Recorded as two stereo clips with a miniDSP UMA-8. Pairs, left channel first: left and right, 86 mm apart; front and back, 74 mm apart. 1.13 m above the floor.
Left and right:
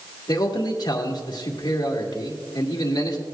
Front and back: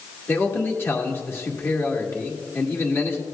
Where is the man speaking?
55° left, 1.6 m.